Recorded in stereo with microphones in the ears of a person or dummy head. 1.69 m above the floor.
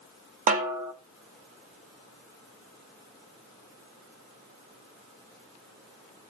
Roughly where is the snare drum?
Right.